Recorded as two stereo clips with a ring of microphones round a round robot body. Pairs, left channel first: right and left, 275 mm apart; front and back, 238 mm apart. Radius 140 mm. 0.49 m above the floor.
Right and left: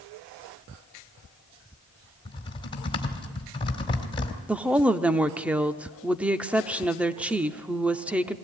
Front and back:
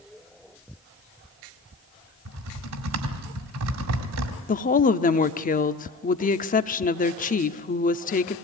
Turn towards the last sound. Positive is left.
turn(degrees=10)